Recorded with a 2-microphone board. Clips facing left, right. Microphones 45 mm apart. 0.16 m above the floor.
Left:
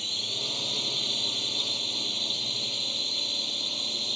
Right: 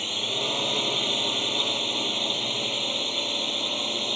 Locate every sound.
0.0 s a drone: 40° right (ahead or behind)